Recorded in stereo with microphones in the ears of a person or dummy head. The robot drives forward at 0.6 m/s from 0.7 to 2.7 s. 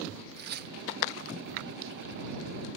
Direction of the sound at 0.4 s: 55° right (ahead or behind).